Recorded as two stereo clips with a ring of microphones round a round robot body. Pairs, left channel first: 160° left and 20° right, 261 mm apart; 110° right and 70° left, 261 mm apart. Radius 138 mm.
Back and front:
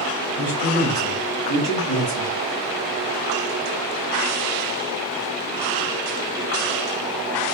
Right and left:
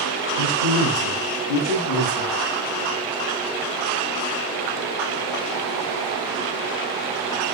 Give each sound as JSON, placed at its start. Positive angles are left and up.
{"t": 0.4, "sound": "a man speaking", "azimuth_deg": -145, "distance_m": 3.0}